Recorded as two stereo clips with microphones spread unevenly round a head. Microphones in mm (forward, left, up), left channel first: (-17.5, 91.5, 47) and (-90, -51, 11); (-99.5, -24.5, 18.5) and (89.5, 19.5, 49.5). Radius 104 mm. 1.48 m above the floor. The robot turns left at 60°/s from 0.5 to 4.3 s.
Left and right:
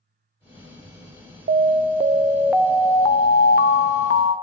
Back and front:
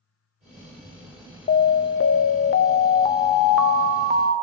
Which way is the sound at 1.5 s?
130° right.